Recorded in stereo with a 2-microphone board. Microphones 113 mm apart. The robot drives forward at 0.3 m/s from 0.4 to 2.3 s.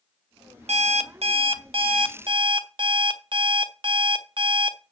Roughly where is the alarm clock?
Right.